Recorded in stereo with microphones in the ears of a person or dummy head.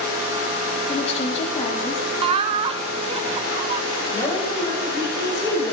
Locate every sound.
0.9 s a woman speaking: 35° left (ahead or behind), 3 m
2.2 s laughter: 30° right (ahead or behind), 0.8 m
4.1 s a woman speaking: 20° left (ahead or behind), 8 m